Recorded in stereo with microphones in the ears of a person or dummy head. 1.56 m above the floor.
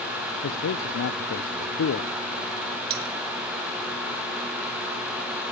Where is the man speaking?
80° left, 0.7 m.